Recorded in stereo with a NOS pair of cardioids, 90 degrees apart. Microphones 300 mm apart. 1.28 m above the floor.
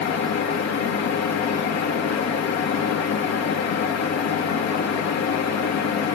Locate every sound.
0.0 s a fan: 65° left, 1.6 m